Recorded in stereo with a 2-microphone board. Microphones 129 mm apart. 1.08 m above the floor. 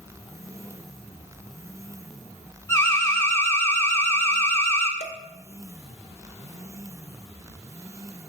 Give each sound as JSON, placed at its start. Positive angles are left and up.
{"t": 2.7, "sound": "an alarm", "side_deg": 20, "distance_m": 0.9}
{"t": 5.0, "sound": "dishes clattering", "side_deg": 60, "distance_m": 0.9}